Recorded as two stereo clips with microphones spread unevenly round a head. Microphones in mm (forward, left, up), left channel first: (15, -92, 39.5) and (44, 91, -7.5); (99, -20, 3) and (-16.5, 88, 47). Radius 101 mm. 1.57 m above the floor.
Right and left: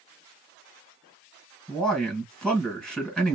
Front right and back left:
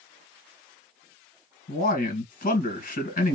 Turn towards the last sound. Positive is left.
turn(degrees=-10)